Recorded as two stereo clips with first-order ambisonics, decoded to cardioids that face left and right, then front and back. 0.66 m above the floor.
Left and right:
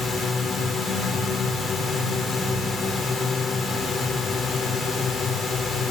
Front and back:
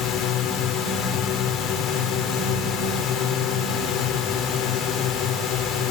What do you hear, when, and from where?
0.0 s a drone: 20° left